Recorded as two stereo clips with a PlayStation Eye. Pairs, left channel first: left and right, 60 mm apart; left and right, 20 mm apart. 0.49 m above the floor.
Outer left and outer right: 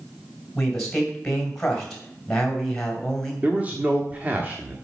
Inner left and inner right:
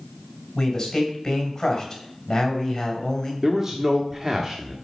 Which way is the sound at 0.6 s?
5° left (ahead or behind).